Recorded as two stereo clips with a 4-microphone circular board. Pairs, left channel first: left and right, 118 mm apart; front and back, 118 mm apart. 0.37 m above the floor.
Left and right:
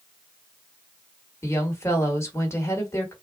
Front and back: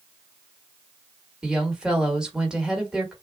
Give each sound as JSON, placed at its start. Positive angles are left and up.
{"t": 1.4, "sound": "a woman speaking", "azimuth_deg": 105, "distance_m": 1.4}